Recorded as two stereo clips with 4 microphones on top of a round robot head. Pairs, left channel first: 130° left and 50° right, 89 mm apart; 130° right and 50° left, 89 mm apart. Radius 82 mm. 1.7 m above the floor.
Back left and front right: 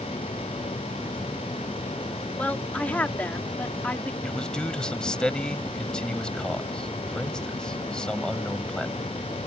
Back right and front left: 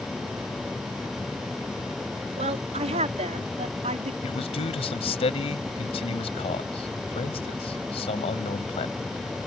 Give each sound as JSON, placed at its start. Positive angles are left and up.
{"t": 2.4, "sound": "a woman speaking", "azimuth_deg": 55}
{"t": 4.2, "sound": "a man speaking", "azimuth_deg": -150}